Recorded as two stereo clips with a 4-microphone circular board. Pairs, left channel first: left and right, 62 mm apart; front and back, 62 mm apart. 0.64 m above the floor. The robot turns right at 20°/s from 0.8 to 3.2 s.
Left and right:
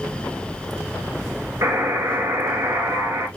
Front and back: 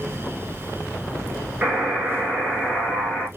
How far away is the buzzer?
About 1.8 m.